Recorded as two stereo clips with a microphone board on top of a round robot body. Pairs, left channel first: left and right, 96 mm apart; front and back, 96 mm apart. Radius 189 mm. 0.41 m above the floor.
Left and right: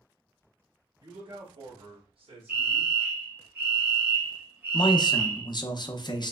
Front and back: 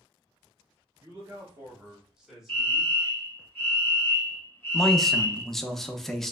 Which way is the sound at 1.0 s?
120° right.